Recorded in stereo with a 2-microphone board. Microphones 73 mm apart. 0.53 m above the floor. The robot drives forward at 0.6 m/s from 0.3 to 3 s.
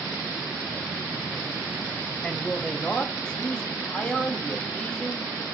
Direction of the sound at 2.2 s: 10° left (ahead or behind).